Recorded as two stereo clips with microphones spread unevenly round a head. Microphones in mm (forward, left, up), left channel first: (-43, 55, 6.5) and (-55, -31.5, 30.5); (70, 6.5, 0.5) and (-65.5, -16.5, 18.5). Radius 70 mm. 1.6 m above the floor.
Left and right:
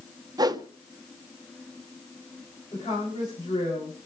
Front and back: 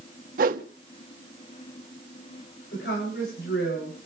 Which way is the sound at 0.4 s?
140° right.